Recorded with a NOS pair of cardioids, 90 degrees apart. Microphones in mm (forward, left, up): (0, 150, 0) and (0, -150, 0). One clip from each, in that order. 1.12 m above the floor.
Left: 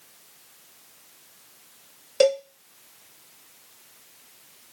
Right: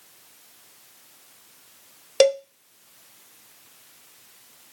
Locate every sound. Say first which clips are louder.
2.2 s a cowbell: right 2 dB; 35° right, 0.7 m